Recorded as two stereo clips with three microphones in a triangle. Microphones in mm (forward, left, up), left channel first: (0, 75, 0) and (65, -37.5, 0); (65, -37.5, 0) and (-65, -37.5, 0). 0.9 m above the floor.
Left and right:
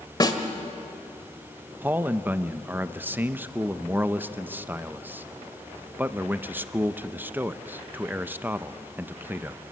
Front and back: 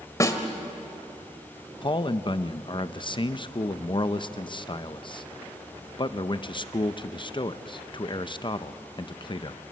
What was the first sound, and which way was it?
A snare drum, 65° left.